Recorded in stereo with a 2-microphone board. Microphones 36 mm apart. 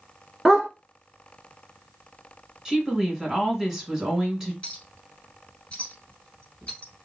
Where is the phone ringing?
No phone ringing in this recording.